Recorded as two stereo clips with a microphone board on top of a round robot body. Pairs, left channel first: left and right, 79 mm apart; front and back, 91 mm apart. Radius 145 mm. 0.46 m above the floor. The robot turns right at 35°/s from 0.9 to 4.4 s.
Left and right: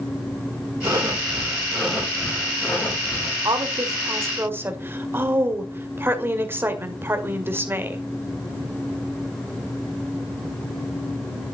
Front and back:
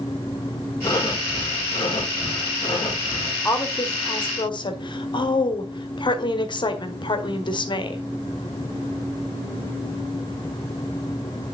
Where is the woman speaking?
60° right, 1.7 m; by 8.0 s 30° right, 1.7 m.